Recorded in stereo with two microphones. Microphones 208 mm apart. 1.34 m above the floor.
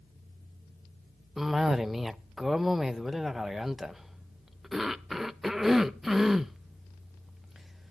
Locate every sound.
1.4 s a cough: centre (ahead or behind), 0.6 m